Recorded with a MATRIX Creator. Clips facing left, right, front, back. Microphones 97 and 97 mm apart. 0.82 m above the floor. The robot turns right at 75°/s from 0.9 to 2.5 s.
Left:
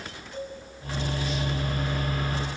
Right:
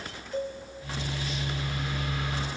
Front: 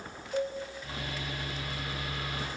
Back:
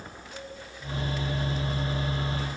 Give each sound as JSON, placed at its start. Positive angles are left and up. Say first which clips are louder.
{"t": 0.3, "sound": "a cowbell", "louder": "right 5 dB, front 12 dB", "azimuth_deg": -40, "distance_m": 4.0}